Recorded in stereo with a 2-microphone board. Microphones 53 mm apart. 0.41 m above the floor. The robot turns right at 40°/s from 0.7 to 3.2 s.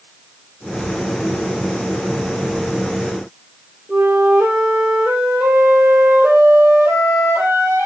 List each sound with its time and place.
3.9 s a flute: 40° right (ahead or behind), 10 m